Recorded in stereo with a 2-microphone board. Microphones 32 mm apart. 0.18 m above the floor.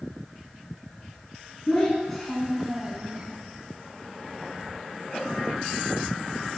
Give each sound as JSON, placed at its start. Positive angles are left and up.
{"t": 1.7, "sound": "a child speaking", "side_deg": 15, "distance_m": 1.6}